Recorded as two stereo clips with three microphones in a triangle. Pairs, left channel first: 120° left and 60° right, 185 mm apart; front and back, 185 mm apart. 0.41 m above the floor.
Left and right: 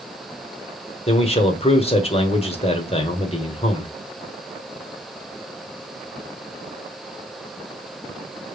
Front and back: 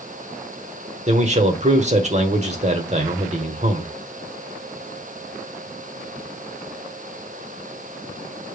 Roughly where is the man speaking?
Behind left.